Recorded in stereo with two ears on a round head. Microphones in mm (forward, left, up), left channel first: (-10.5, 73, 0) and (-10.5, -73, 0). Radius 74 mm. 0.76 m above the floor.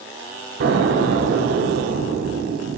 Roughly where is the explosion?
Right.